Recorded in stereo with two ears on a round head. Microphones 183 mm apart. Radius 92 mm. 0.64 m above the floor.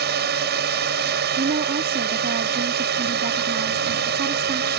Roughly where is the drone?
Right.